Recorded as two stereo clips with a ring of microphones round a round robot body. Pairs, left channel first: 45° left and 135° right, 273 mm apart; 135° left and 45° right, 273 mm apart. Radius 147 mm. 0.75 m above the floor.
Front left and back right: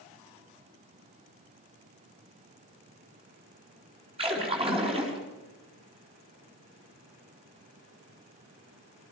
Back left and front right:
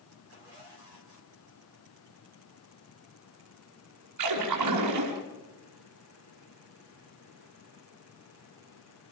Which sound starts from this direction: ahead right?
A splash, at 4.2 s.